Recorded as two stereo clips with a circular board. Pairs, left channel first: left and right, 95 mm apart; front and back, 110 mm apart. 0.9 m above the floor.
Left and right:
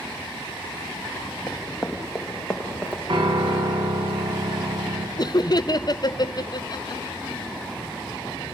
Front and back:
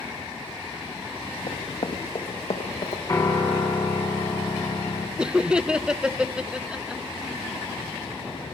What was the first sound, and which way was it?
Running footsteps, 5° left.